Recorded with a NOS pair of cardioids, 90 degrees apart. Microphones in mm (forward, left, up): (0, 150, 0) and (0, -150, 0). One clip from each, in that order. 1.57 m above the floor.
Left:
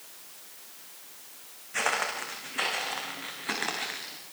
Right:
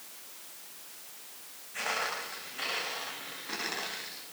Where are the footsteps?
70° left, 7 m; by 4.2 s 80° left, 9 m.